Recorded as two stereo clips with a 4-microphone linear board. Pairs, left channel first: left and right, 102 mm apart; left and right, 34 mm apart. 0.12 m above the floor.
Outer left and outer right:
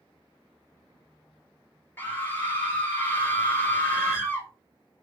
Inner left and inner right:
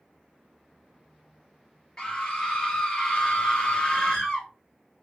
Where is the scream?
20° left (ahead or behind), 2.5 m.